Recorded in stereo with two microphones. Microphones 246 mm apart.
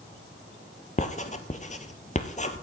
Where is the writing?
35° left (ahead or behind), 0.8 m.